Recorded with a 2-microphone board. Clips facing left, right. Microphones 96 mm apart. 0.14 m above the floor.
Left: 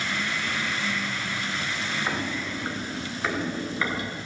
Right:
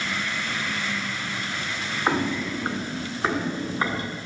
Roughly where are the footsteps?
Right.